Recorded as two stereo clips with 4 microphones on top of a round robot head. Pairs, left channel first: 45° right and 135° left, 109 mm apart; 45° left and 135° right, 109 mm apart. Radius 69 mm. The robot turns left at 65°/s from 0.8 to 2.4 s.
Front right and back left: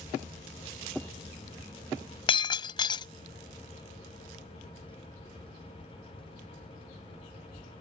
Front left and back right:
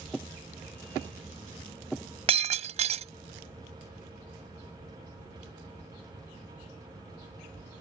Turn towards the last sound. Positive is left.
turn(degrees=-100)